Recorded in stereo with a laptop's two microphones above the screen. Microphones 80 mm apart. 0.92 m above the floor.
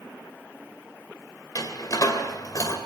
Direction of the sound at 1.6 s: 50° left (ahead or behind).